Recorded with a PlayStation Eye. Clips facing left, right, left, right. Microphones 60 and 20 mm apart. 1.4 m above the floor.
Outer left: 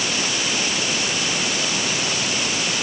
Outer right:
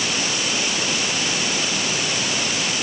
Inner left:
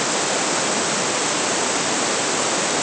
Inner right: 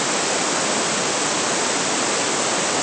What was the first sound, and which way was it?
Only background noise.